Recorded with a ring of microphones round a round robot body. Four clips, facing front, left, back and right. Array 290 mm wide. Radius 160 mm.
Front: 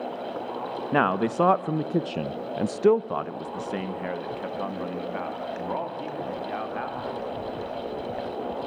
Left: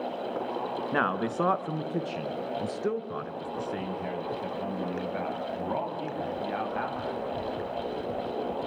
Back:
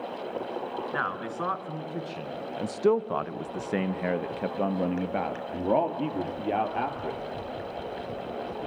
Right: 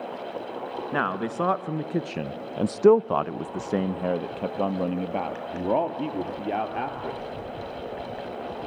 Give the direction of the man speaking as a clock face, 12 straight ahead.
12 o'clock.